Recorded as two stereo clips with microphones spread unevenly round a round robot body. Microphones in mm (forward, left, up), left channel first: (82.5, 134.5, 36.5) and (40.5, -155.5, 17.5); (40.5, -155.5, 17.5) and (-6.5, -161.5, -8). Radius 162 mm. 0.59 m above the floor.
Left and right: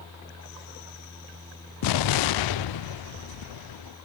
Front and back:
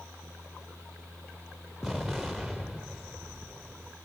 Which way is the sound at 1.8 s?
105° left.